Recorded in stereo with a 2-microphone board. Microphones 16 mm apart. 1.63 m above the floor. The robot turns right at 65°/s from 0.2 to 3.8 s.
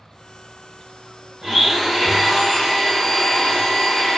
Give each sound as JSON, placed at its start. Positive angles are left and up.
{"t": 1.4, "sound": "a blender", "azimuth_deg": -65, "distance_m": 0.8}